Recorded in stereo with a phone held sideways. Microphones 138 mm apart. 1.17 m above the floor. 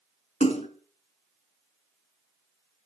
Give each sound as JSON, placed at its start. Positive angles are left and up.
{"t": 0.4, "sound": "a splash", "side_deg": 45, "distance_m": 2.5}